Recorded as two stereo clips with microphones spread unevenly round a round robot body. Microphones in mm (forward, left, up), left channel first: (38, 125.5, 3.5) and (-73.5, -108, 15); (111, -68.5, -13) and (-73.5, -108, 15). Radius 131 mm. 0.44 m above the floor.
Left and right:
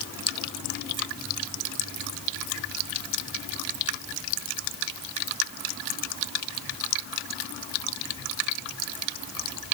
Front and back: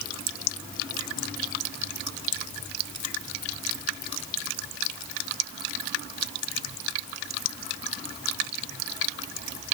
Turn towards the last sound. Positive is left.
No sound to turn to.